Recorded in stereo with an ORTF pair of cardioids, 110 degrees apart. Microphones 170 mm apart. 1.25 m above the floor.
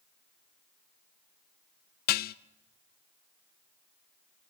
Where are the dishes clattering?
70° left, 0.8 m.